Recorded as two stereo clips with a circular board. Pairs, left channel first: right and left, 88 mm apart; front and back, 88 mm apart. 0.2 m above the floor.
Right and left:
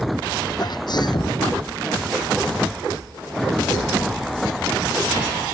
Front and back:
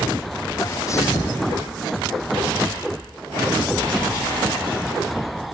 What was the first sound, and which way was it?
A sneeze, 55° right.